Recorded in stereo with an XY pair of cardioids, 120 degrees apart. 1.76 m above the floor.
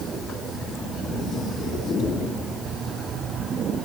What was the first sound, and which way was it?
Only background noise.